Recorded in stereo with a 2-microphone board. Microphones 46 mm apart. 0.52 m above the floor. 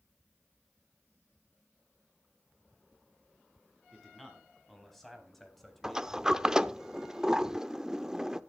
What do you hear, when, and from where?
3.9 s a man speaking: 5° left (ahead or behind), 5 m
5.8 s a sliding door: 15° right (ahead or behind), 0.5 m